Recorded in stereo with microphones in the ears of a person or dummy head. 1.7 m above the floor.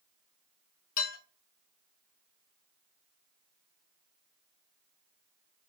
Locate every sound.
1.0 s dishes clattering: 45° left (ahead or behind), 2.5 m